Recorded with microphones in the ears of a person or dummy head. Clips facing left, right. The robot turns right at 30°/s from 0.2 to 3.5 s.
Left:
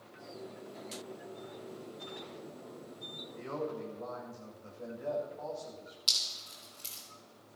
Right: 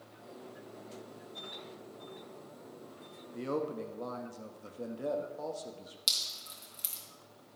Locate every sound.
3.3 s a man speaking: 45° right (ahead or behind), 1.8 m; by 6.0 s 50° right (ahead or behind), 1.8 m
6.1 s dripping: 30° right (ahead or behind), 2.5 m